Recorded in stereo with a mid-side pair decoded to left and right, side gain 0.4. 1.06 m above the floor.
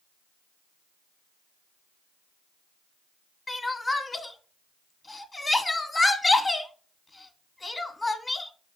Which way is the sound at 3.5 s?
25° left.